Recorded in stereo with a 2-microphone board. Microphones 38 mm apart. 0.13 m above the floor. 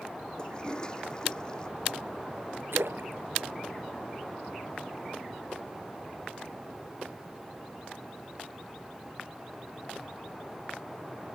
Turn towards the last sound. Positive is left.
turn(degrees=-85)